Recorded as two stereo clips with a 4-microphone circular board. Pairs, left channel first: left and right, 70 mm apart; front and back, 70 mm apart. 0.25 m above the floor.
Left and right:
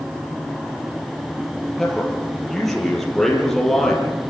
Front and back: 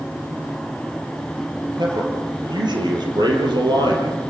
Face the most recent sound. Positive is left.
turn(degrees=175)